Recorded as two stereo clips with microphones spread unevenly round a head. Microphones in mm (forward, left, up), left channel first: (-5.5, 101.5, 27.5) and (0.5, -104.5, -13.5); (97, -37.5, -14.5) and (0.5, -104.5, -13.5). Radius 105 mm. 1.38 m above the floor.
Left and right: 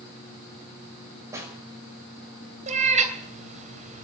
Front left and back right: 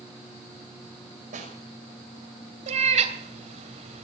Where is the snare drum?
165° right, 5.5 m.